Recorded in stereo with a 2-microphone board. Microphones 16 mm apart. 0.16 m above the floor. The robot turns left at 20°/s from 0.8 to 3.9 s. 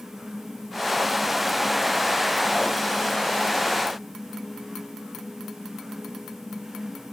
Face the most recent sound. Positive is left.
No sound to turn to.